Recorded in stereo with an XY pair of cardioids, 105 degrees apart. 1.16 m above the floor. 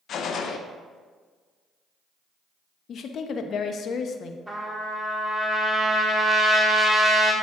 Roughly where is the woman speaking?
Ahead left.